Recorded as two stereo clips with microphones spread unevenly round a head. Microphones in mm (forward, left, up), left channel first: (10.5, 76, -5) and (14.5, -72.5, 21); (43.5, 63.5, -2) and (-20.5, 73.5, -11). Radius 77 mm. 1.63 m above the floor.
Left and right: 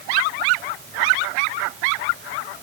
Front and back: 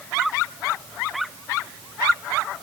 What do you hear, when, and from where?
Only background noise.